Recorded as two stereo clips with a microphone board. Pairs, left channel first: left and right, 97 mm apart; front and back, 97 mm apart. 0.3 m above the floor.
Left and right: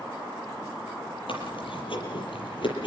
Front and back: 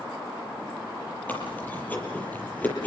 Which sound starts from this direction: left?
Chewing, at 1.3 s.